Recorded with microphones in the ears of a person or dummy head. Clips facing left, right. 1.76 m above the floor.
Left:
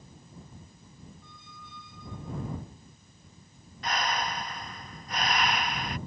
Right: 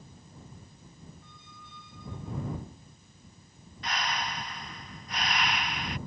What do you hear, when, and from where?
1.2 s a squeak: 85° left
3.8 s breathing: 40° left (ahead or behind)